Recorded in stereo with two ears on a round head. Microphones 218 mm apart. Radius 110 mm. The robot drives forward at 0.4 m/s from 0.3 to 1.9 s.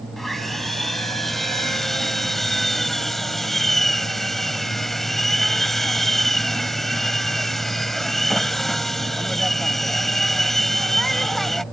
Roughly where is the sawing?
Centre.